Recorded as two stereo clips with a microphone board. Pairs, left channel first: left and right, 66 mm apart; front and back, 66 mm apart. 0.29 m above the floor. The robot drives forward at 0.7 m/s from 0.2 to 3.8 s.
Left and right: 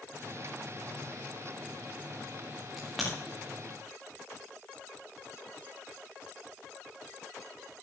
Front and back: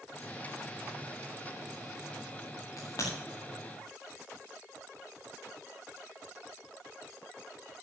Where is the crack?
Straight ahead, 6 m.